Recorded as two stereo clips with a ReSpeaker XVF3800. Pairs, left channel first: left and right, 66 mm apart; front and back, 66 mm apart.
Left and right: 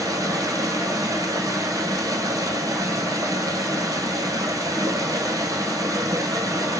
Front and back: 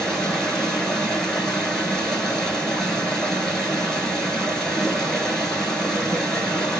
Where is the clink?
I don't hear a clink.